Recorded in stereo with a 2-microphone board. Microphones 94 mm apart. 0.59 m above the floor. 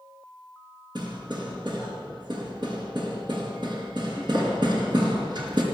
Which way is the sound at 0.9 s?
55° right (ahead or behind).